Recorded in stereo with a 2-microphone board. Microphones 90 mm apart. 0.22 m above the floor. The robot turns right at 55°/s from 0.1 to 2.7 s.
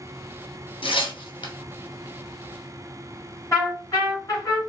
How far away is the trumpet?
About 1.6 m.